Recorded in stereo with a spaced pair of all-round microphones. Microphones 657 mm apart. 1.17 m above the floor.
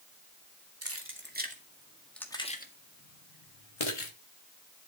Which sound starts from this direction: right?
Keys jangling, at 0.8 s.